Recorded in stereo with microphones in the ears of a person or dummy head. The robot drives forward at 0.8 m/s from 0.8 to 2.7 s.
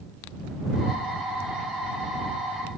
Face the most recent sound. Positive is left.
No sound to turn to.